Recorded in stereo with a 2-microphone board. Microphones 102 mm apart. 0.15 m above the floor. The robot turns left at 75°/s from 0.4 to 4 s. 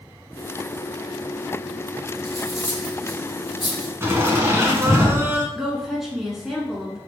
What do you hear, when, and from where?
2.2 s cutlery clinking: 5° left (ahead or behind), 1.6 m; by 3.9 s 40° left (ahead or behind), 1.6 m
4.0 s laughter: 25° right (ahead or behind), 1.5 m
5.5 s a woman speaking: 5° right (ahead or behind), 1.6 m